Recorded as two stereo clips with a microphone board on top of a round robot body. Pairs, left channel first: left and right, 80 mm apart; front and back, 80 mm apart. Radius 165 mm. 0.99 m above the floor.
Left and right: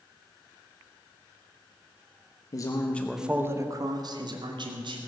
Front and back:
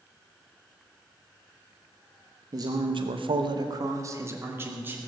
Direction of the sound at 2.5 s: 135° left.